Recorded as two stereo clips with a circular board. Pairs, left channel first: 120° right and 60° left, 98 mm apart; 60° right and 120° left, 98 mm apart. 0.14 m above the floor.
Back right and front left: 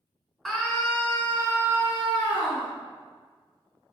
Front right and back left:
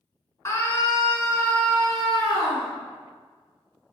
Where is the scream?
30° right, 1.3 m; by 2.7 s 160° right, 1.5 m.